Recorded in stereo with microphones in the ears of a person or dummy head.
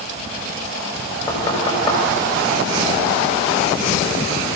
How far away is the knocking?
About 7 m.